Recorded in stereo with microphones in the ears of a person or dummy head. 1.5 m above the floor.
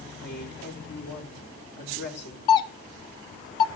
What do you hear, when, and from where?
0.2 s a woman speaking: 85° left, 2 m
2.5 s a doorbell: 20° left (ahead or behind), 0.6 m